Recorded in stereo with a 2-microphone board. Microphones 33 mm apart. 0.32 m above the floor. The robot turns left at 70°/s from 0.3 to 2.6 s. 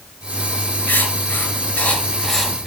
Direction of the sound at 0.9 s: 65° left (ahead or behind).